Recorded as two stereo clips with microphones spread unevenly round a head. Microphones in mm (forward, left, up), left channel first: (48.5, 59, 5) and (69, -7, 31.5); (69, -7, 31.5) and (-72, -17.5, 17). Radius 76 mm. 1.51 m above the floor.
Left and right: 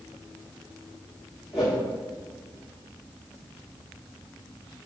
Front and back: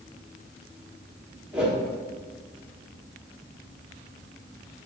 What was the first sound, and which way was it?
A whoosh, 90° right.